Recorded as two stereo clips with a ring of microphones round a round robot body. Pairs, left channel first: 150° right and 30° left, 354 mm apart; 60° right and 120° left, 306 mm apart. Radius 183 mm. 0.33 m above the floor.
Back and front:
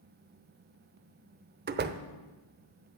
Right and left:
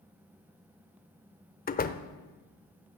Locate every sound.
1.7 s a door slam: 15° right, 0.8 m